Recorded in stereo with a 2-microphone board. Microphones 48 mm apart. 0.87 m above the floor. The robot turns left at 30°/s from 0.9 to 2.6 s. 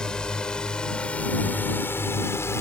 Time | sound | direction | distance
0.0 | a drone | 15° left (ahead or behind) | ?